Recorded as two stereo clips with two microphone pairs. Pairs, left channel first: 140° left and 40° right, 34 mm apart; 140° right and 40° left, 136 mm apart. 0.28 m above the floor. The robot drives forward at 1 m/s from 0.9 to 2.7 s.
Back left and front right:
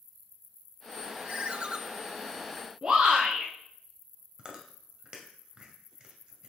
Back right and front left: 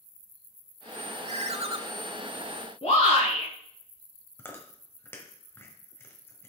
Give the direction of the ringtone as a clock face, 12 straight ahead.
12 o'clock.